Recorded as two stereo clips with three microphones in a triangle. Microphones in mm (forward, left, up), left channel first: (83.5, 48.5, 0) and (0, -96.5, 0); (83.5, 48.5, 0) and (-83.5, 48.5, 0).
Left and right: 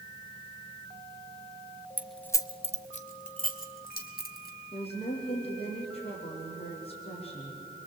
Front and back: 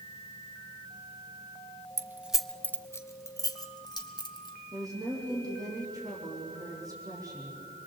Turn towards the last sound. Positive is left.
turn(degrees=110)